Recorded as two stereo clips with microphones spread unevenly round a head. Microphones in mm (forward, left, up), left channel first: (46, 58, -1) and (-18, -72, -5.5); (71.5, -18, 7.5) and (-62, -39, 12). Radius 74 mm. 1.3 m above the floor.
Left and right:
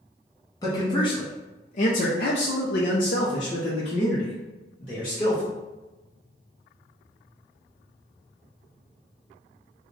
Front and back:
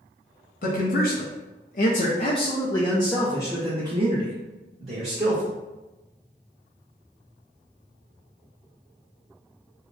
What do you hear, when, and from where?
0.6 s a man speaking: straight ahead, 1.1 m; by 5.5 s 130° left, 1.7 m